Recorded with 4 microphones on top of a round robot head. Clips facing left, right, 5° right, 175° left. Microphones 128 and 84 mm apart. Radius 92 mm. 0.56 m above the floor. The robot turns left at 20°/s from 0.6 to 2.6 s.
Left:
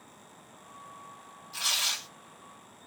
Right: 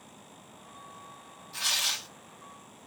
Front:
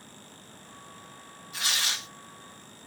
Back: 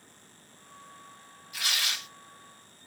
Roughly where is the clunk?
I don't hear a clunk.